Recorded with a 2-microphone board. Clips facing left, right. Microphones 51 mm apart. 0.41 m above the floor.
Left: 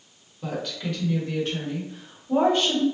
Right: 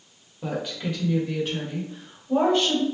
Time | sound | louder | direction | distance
0.4 | a woman speaking | right 1 dB | 20° right (ahead or behind) | 1.5 m